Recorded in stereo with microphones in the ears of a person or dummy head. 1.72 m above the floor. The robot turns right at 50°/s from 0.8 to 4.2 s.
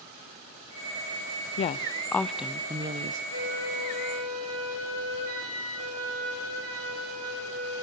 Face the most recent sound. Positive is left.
turn(degrees=-85)